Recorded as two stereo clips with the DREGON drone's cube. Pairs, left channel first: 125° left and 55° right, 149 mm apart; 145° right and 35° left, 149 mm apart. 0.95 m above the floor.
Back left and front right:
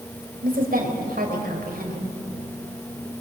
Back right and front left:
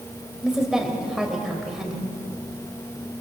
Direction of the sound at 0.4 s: 55° right.